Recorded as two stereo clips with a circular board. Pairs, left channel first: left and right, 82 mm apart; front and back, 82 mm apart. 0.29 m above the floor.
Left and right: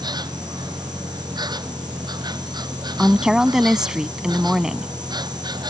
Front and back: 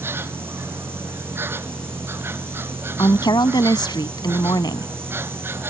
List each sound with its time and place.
0.0 s an insect: 120° right
3.0 s a woman speaking: 10° right